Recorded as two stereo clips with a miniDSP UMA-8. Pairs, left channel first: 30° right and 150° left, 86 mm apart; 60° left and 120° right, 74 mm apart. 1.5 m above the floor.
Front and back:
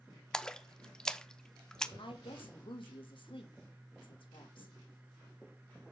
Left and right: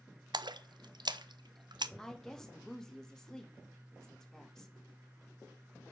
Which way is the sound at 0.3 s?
110° right.